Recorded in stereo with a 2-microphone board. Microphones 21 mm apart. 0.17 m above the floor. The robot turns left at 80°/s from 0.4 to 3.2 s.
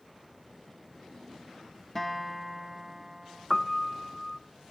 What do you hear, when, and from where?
1.9 s a guitar: 15° left (ahead or behind), 1.0 m; by 3.5 s 20° right (ahead or behind), 1.0 m
3.5 s a piano: 15° left (ahead or behind), 0.5 m